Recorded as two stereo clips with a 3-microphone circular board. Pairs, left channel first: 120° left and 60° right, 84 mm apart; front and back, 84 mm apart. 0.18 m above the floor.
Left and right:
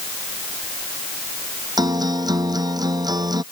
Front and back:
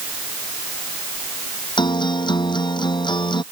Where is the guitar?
25° right.